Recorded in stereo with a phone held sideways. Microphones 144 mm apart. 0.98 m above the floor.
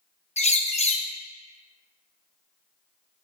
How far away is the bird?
About 0.7 m.